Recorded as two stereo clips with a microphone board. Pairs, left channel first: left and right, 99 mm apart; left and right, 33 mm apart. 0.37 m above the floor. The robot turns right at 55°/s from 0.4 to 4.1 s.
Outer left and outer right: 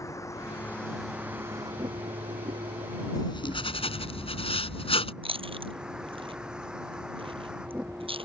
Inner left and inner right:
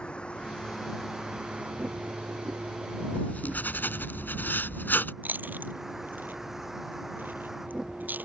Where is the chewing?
65° right (ahead or behind).